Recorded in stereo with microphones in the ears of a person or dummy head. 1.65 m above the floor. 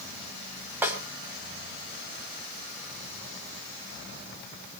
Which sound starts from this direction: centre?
A snare drum, at 0.8 s.